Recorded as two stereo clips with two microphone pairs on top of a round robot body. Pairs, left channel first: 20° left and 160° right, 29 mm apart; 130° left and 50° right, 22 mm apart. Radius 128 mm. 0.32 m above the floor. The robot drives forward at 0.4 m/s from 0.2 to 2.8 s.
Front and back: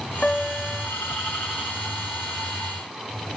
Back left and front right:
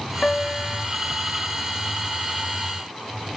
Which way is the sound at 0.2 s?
80° left.